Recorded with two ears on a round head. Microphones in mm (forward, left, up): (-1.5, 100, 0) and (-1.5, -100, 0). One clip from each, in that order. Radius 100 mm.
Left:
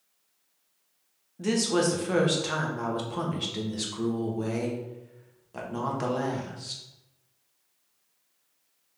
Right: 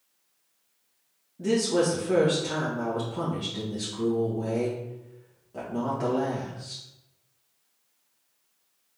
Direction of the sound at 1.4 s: 45° left (ahead or behind).